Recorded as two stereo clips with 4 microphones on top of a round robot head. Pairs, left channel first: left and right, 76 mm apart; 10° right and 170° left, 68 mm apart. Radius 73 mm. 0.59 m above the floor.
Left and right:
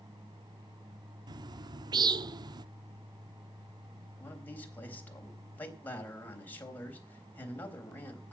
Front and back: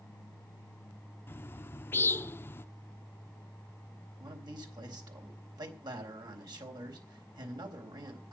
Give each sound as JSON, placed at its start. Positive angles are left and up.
{"t": 1.3, "sound": "a bird", "azimuth_deg": -70, "distance_m": 0.8}
{"t": 4.2, "sound": "a man speaking", "azimuth_deg": 155, "distance_m": 4.0}